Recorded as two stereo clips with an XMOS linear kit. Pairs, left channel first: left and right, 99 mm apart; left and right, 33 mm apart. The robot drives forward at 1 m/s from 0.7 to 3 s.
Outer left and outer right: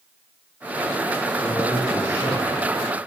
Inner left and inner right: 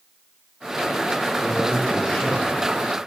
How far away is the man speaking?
About 6 m.